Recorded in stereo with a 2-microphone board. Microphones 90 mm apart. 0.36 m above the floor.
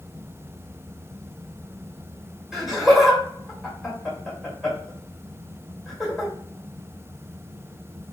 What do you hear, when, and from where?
2.5 s laughter: centre (ahead or behind), 1.5 m